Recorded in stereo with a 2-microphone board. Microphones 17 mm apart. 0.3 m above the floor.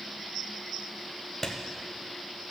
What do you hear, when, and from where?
1.4 s a clap: 15° left (ahead or behind), 1.1 m